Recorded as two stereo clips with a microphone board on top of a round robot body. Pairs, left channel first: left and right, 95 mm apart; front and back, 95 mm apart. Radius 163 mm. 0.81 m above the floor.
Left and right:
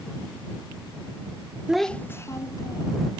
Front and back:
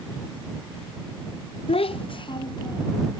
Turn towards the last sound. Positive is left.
turn(degrees=50)